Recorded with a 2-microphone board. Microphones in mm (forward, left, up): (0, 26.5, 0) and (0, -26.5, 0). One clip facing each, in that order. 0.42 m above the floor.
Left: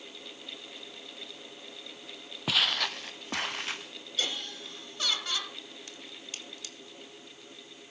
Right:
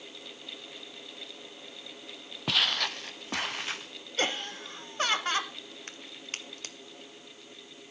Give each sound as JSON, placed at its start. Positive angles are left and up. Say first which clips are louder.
{"t": 2.5, "sound": "footsteps", "louder": "even", "side_deg": 0, "distance_m": 0.7}
{"t": 4.2, "sound": "laughter", "louder": "right 5 dB", "side_deg": -45, "distance_m": 1.9}
{"t": 5.9, "sound": "a crack", "louder": "right 3 dB", "side_deg": -50, "distance_m": 1.6}